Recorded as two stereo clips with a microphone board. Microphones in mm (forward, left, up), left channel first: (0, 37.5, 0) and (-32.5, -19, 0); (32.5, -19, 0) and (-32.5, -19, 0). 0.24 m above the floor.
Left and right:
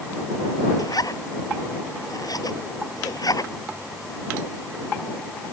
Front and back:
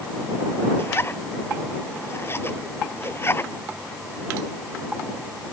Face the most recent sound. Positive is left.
turn(degrees=50)